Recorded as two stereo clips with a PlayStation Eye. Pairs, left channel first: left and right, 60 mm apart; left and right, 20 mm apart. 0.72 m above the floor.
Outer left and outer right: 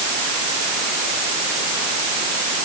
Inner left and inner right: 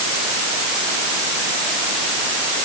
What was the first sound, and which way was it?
Only background noise.